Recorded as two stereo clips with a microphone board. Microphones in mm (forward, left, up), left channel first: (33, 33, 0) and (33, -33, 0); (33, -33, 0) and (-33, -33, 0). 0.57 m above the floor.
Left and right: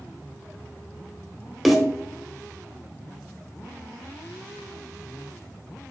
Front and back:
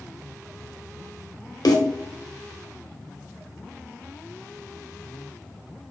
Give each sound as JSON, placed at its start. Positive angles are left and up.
{"t": 1.6, "sound": "a snare drum", "azimuth_deg": 0, "distance_m": 1.1}